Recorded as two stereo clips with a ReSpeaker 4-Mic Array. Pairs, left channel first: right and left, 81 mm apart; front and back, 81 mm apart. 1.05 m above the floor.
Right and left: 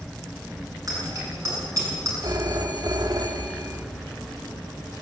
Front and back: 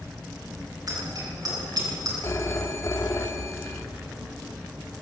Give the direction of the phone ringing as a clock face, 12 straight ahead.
10 o'clock.